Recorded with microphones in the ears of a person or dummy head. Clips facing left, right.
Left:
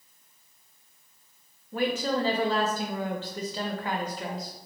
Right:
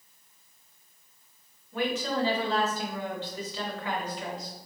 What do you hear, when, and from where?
1.7 s a woman speaking: 35° left (ahead or behind), 0.5 m